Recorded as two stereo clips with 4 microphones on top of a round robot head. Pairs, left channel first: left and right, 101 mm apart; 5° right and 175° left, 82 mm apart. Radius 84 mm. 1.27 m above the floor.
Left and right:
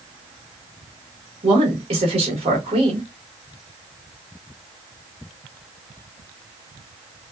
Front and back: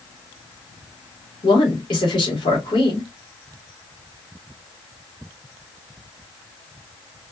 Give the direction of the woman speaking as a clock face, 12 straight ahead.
2 o'clock.